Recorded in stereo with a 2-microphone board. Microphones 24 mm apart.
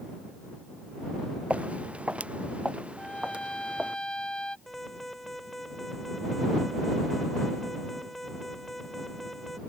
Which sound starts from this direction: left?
A trumpet, at 3.0 s.